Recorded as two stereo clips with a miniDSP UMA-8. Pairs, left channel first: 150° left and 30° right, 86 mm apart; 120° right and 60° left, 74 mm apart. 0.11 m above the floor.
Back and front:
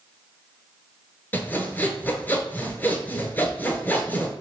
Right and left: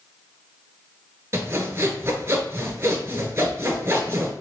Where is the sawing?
95° left, 0.8 m.